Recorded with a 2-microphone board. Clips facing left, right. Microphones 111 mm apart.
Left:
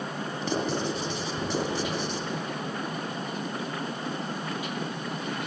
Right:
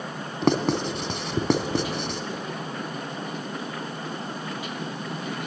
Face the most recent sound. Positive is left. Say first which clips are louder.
# right 7 dB
turn(degrees=-80)